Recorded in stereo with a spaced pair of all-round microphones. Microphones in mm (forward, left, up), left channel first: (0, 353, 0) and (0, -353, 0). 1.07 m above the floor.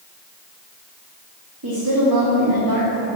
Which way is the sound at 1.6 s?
30° right (ahead or behind).